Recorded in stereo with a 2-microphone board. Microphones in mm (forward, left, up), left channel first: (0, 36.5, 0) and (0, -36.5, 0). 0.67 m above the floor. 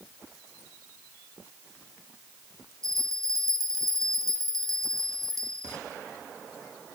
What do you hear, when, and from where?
2.8 s a bell: 50° right (ahead or behind), 1.6 m